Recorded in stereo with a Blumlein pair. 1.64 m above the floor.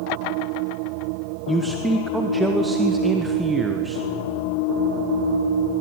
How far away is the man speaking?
About 1.1 m.